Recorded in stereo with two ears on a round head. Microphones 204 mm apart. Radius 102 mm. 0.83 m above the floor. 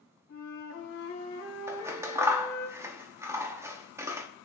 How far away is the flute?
About 2.5 m.